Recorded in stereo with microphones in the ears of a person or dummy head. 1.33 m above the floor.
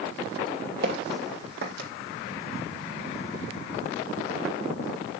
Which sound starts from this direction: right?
Footsteps, at 0.8 s.